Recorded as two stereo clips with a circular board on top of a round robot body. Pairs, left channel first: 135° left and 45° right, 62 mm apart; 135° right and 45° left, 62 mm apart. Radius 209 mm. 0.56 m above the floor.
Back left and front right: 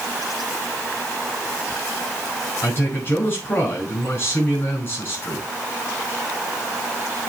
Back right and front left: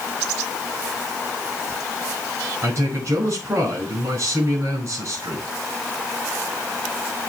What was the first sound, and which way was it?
A man speaking, 85° left.